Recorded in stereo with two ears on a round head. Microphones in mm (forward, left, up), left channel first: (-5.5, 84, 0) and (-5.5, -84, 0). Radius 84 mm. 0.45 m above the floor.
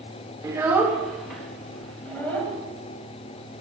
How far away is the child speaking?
About 0.5 m.